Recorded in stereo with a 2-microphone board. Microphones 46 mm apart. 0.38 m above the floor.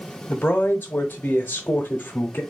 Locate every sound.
0.3 s a man speaking: 40° left (ahead or behind), 0.9 m